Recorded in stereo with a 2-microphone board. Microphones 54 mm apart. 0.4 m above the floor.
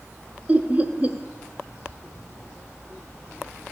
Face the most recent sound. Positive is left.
turn(degrees=-30)  # may be behind; listen again after turning